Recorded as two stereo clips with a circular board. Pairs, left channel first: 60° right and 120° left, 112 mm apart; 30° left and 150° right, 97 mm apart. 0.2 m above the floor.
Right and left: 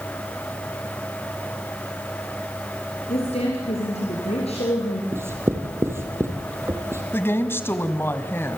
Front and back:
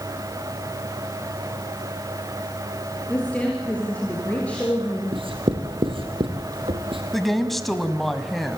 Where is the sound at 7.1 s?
55° right, 1.3 m.